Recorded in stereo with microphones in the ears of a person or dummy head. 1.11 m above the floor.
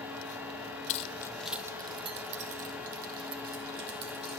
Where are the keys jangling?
40° left (ahead or behind), 0.5 m; by 4.4 s 55° right (ahead or behind), 1.9 m.